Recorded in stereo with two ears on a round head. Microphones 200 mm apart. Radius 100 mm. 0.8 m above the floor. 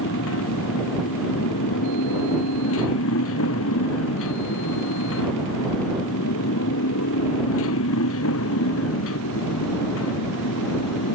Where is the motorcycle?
70° left (ahead or behind).